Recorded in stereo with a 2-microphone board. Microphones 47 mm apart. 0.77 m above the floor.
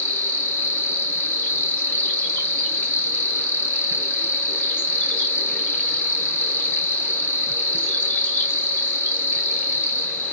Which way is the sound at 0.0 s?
45° left (ahead or behind).